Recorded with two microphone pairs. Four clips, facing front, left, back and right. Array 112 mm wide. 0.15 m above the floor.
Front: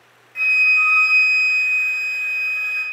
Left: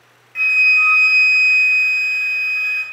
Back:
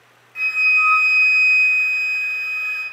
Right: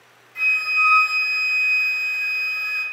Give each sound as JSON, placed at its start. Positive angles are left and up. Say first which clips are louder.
{"t": 0.3, "sound": "a flute", "louder": "left 5 dB, front 1 dB", "azimuth_deg": 90, "distance_m": 0.5}